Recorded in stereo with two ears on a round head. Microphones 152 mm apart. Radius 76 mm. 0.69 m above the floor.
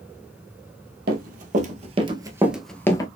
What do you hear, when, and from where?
1.1 s running footsteps: 55° right (ahead or behind), 1.1 m; by 3.1 s 25° left (ahead or behind), 0.7 m